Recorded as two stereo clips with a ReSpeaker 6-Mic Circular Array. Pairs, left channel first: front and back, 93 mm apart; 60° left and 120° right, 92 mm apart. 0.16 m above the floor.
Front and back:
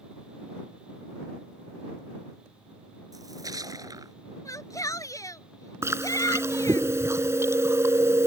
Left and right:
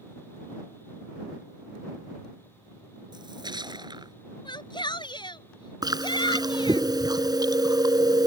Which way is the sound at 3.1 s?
140° right.